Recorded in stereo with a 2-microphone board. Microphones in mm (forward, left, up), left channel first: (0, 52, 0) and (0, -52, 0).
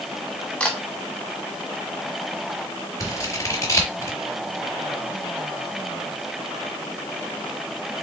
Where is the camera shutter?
10° left (ahead or behind), 1.1 m.